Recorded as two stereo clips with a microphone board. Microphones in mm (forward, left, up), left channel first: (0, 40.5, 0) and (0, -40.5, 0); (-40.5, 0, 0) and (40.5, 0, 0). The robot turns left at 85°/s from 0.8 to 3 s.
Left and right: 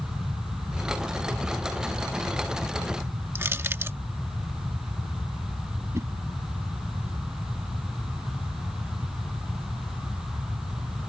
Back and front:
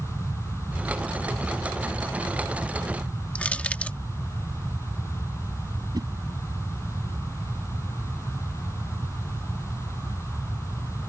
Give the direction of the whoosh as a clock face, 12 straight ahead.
1 o'clock.